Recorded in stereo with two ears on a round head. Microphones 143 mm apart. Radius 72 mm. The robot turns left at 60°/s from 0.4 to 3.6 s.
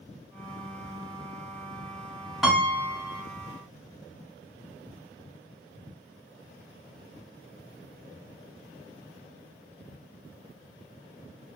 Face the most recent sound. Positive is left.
turn(degrees=110)